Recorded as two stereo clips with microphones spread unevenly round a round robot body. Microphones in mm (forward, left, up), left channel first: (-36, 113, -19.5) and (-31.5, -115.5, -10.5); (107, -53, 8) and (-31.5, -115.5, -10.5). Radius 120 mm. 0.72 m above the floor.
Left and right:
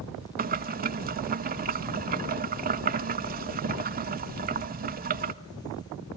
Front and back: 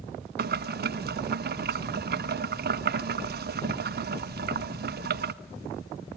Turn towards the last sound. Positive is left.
turn(degrees=-140)